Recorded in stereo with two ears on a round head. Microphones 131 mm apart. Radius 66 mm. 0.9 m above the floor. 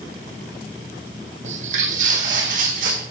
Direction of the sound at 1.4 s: 50° right (ahead or behind).